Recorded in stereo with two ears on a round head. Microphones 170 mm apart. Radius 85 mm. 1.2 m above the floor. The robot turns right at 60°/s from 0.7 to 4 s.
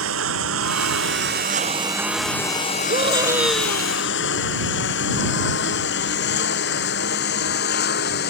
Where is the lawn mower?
85° right; by 8.3 s 60° left (ahead or behind).